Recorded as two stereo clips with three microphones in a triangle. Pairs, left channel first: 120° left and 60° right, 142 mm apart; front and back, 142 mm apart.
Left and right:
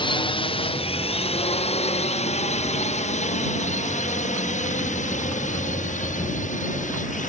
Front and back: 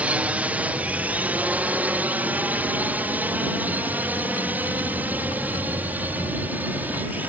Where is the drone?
105° left; by 7.3 s 100° left.